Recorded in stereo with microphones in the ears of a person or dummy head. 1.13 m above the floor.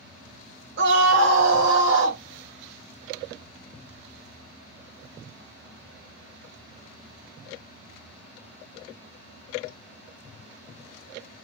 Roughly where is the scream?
Right.